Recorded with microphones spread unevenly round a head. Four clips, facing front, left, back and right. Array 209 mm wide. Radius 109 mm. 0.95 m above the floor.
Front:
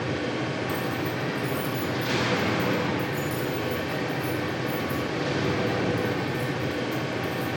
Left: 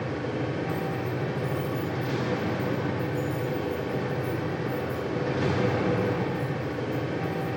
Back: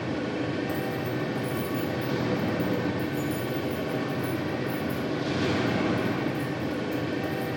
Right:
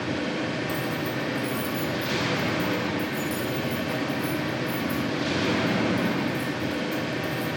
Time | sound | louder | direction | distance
0.7 | keys jangling | right 1 dB, front 1 dB | 120° right | 1.9 m